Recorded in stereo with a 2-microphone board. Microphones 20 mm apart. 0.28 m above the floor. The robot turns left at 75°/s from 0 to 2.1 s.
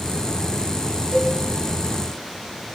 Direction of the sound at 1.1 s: 10° right (ahead or behind).